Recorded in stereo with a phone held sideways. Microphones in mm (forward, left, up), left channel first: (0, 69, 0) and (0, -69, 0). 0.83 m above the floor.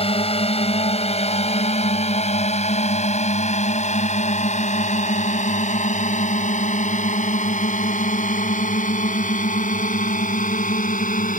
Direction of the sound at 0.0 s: 40° left (ahead or behind).